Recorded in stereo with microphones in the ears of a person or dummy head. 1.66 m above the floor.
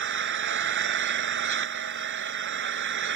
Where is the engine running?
55° right (ahead or behind).